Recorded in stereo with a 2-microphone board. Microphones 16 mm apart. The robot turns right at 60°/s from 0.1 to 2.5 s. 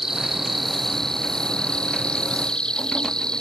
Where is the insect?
30° right; by 3.4 s 115° left.